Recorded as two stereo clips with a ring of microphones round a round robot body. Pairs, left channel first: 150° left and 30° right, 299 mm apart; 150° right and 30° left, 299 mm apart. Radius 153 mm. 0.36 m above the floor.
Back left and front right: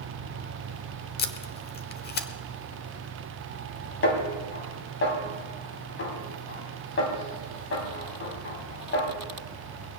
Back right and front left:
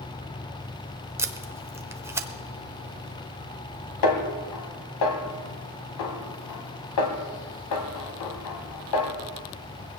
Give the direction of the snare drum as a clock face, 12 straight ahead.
5 o'clock.